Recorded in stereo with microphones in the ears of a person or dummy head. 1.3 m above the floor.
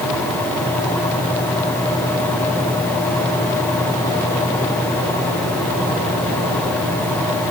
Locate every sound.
Only background noise.